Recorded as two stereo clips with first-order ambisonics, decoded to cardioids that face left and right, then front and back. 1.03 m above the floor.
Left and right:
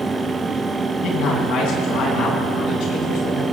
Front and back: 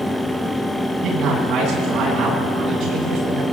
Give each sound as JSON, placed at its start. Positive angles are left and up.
{"t": 1.0, "sound": "a man speaking", "azimuth_deg": 125, "distance_m": 10.0}